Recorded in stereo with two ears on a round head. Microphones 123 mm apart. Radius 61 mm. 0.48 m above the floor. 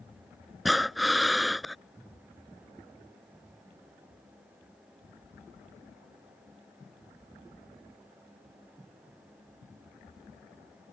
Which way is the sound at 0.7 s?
Centre (ahead or behind).